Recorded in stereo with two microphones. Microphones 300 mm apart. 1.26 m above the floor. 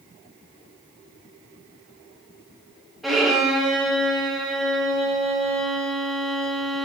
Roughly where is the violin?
Centre.